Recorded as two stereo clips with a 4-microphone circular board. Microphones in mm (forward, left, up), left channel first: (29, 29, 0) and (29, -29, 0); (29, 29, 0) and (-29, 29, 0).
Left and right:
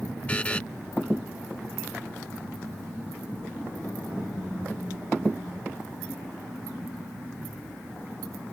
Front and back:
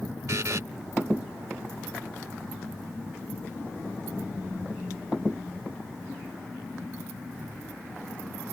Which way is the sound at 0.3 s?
155° left.